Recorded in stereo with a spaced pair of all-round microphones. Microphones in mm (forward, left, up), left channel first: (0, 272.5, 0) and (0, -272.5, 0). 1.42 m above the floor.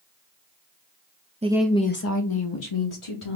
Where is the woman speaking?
15° right (ahead or behind), 0.6 m; by 3.4 s 70° left (ahead or behind), 1.2 m.